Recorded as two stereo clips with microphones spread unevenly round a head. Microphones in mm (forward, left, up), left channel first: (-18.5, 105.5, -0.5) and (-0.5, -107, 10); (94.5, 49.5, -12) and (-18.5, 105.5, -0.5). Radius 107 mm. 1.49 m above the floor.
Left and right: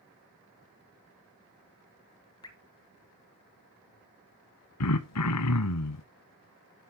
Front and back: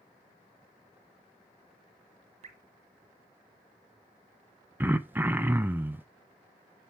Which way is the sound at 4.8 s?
80° left.